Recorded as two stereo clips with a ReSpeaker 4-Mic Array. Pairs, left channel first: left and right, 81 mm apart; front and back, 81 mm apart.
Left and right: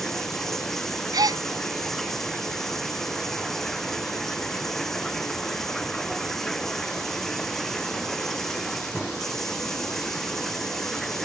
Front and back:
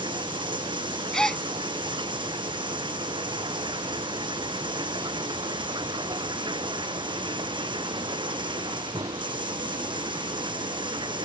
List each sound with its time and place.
0.0 s running water: 175° left
1.1 s a gasp: 80° right